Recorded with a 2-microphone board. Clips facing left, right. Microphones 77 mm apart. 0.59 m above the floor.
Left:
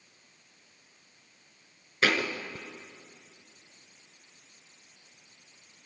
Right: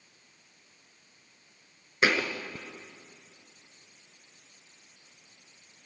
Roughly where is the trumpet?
I don't hear a trumpet.